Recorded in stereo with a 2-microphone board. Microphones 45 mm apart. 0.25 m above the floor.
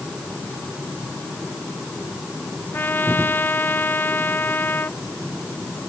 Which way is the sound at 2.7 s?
45° left (ahead or behind).